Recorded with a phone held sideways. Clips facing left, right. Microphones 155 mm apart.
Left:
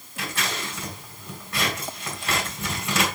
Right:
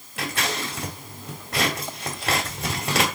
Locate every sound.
0.2 s scissors: 70° right (ahead or behind), 2.5 m